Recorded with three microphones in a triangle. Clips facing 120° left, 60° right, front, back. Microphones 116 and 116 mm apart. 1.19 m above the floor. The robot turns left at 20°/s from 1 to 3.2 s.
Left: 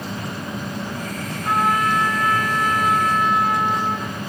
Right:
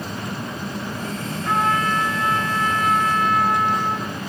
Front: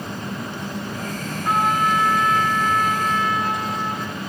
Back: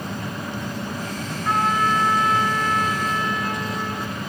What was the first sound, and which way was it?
A trumpet, 80° left.